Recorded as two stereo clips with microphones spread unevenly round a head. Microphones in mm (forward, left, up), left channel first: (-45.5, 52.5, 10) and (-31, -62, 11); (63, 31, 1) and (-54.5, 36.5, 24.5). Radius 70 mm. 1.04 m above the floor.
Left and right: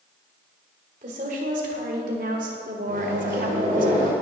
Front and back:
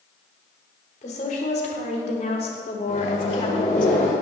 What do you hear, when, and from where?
1.0 s a woman speaking: 45° right, 3 m; by 3.9 s 60° right, 1.5 m
2.9 s a microwave: 50° right, 3 m